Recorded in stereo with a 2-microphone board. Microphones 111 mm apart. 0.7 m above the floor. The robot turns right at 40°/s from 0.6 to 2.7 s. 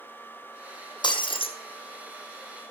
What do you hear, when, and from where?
1.0 s breaking glass: 40° left (ahead or behind), 1.6 m; by 1.5 s 60° left (ahead or behind), 1.6 m